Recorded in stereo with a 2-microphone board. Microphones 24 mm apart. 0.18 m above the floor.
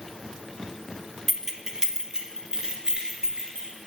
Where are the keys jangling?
15° right (ahead or behind), 0.8 m; by 3.7 s 30° right (ahead or behind), 2.5 m.